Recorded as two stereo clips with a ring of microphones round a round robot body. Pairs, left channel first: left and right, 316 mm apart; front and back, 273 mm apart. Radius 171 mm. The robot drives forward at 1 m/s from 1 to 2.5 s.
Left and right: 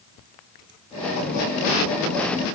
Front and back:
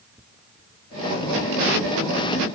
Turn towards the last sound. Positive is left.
No sound to turn to.